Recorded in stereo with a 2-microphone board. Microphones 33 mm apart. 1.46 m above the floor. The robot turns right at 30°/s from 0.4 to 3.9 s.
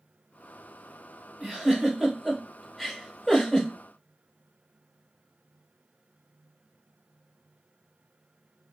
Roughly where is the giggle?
Right.